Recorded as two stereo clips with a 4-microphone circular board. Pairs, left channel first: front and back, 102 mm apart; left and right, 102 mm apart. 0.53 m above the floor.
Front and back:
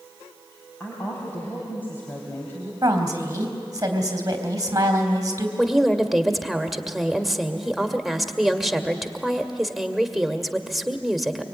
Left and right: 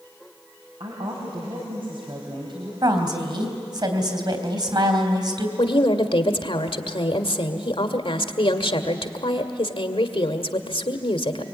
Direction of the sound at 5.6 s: 95° left.